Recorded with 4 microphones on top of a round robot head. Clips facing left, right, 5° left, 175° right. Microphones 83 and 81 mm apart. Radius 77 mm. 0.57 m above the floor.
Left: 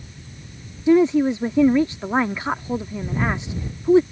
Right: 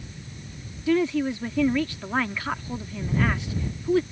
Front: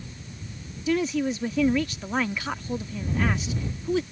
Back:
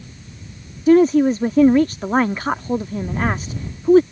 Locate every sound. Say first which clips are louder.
0.9 s a woman speaking: left 7 dB, back 12 dB; 155° left